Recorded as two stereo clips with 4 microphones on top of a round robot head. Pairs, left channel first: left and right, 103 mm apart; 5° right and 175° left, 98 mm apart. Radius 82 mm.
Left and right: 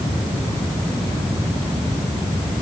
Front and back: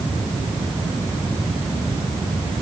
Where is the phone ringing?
I don't hear a phone ringing.